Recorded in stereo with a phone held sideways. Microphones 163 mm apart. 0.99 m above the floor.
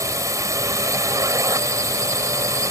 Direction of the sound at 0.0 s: 20° right (ahead or behind).